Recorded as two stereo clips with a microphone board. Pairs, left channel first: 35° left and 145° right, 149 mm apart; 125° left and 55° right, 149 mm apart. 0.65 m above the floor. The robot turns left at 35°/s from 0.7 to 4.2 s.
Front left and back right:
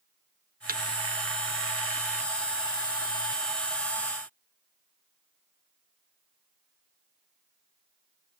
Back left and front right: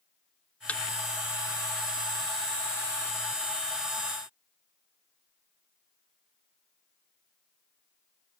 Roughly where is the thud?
Behind right.